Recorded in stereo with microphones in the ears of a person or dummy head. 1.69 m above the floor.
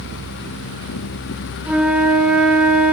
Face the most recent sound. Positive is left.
turn(degrees=-10)  # may be behind; listen again after turning